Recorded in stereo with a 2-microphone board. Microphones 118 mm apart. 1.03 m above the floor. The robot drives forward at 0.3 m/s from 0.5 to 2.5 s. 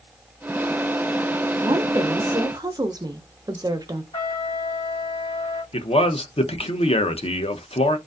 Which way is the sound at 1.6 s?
35° right (ahead or behind).